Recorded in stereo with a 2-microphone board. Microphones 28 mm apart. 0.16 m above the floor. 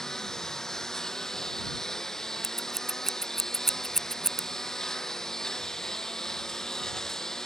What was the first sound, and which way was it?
A lawn mower, 20° left (ahead or behind).